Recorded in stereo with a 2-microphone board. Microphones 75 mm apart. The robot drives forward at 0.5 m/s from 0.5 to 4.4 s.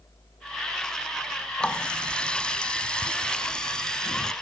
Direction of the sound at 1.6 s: 10° left (ahead or behind).